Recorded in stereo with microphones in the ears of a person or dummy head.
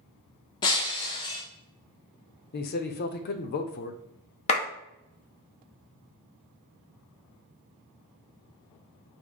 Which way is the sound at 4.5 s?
35° left (ahead or behind).